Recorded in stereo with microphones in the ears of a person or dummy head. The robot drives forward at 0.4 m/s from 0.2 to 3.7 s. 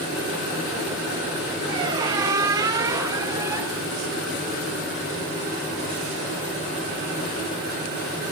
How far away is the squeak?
About 0.9 m.